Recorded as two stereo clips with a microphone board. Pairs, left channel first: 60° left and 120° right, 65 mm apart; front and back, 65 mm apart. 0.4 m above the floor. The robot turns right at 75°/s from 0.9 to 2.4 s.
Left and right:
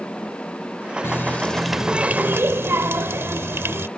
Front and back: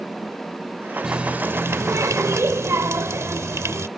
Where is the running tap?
100° left; by 3.9 s 155° right.